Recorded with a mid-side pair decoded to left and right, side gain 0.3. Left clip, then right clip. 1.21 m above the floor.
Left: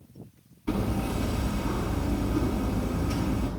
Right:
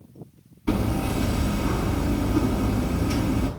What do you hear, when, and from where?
0.7 s hammering: 60° right, 7.5 m